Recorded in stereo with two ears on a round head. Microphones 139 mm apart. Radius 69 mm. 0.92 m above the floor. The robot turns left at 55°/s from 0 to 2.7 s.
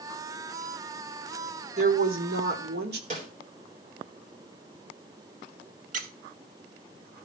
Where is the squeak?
55° right (ahead or behind), 1.1 m.